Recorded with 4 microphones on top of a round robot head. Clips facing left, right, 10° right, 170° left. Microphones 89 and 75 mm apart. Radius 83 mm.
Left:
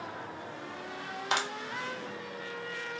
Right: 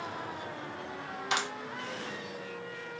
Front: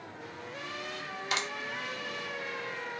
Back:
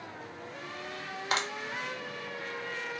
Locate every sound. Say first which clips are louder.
1.3 s a clap: left 1 dB, back 3 dB; 130° left, 1.5 m